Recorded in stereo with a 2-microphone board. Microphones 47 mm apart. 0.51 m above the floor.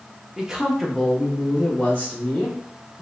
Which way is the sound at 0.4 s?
15° right (ahead or behind).